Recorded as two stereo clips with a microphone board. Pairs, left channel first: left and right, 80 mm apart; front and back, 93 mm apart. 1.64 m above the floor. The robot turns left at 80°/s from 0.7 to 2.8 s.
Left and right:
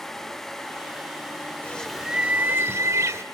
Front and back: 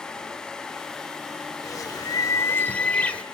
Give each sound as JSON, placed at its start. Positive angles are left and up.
{"t": 1.6, "sound": "a bird", "azimuth_deg": 25, "distance_m": 1.7}